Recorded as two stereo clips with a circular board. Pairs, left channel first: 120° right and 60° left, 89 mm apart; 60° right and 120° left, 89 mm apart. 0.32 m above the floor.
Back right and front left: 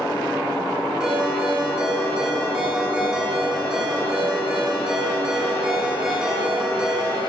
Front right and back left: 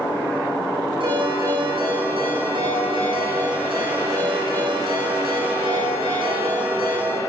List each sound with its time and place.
1.0 s a ringtone: 140° left, 9.5 m